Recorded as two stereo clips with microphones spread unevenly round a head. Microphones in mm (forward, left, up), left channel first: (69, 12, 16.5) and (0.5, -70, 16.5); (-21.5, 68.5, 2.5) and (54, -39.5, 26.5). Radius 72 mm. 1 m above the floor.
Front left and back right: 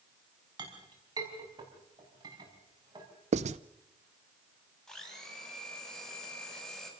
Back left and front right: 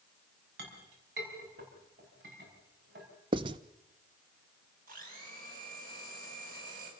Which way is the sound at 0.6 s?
80° right.